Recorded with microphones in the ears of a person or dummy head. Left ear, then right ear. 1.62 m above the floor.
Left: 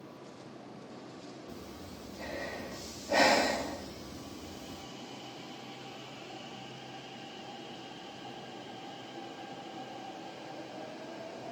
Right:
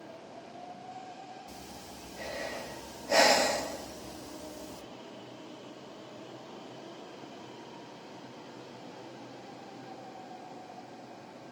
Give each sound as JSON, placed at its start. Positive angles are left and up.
{"t": 1.5, "sound": "breathing", "side_deg": -55, "distance_m": 2.5}